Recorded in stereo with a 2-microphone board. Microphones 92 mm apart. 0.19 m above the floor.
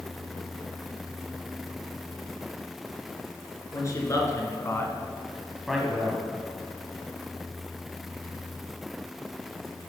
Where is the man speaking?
35° left (ahead or behind), 2.5 m; by 6.2 s 15° right (ahead or behind), 1.4 m.